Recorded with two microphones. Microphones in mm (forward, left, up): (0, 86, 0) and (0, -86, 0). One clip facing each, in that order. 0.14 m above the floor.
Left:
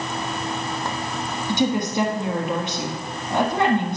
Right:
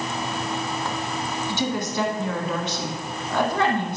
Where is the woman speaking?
20° left (ahead or behind), 1.1 m.